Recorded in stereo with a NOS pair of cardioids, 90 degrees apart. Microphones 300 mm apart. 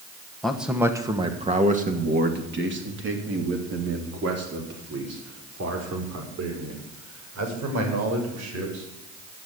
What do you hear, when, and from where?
0.4 s a man speaking: straight ahead, 1.9 m; by 8.8 s 65° right, 7.5 m